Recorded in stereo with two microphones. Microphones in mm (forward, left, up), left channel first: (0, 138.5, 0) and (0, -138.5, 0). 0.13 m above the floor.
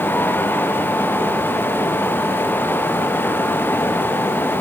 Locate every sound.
Only background noise.